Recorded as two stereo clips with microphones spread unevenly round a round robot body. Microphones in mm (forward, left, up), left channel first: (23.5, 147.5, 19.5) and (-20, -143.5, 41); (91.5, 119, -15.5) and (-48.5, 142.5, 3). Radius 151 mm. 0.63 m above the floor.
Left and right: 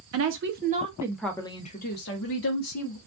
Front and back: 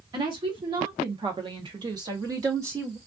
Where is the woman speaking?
125° right, 0.9 m; by 3.0 s 95° left, 1.3 m.